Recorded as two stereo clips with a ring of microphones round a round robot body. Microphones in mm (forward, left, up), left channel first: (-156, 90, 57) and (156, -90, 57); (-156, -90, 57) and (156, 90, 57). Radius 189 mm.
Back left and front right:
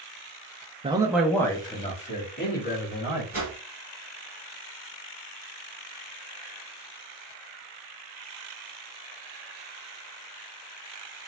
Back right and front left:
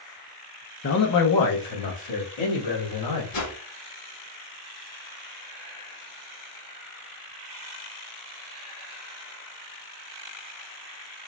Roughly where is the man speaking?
Right.